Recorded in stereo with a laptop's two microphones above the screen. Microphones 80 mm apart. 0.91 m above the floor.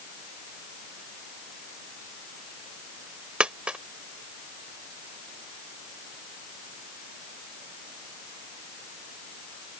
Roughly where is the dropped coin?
Centre.